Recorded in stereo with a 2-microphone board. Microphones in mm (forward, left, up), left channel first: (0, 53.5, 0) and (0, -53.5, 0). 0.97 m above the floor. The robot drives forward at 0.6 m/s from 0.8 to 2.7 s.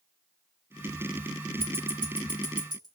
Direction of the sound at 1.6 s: 60° right (ahead or behind).